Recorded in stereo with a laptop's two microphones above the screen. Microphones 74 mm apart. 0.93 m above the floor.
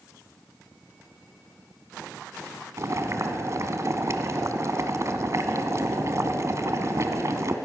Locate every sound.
2.8 s boiling: 45° right (ahead or behind), 1.4 m